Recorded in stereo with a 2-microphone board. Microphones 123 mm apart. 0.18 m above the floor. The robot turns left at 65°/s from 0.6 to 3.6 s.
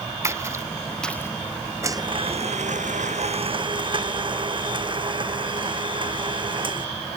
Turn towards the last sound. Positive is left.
turn(degrees=-140)